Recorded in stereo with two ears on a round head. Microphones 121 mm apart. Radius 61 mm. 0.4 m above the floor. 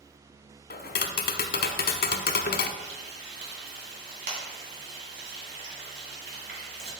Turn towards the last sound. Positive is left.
turn(degrees=-75)  # may be behind; listen again after turning